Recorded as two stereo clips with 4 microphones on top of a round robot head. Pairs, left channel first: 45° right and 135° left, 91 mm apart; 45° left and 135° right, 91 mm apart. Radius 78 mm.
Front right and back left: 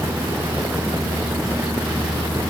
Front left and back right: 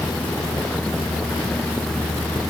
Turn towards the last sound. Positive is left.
No sound to turn to.